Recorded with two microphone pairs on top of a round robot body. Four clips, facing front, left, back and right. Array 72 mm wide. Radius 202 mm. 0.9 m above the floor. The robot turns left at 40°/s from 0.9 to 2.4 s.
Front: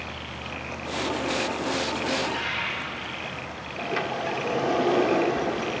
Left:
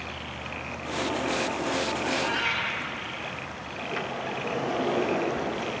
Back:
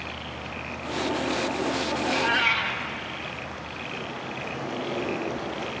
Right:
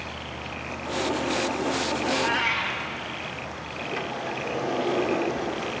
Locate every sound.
2.0 s a cat meowing: 160° right, 2.5 m; by 2.8 s straight behind, 2.5 m
3.8 s a sliding door: 10° left, 1.6 m